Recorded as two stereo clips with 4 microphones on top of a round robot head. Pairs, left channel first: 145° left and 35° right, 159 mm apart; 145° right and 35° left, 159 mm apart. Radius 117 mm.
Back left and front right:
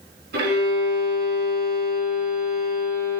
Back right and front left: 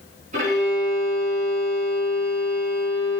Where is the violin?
15° right, 3.5 m.